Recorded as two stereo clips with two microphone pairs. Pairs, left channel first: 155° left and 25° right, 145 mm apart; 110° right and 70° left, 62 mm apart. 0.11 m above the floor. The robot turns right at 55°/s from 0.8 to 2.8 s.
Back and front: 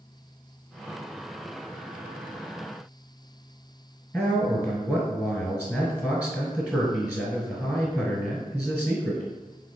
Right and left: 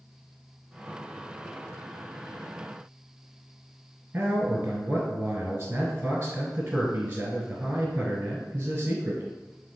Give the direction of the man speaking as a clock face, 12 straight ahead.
9 o'clock.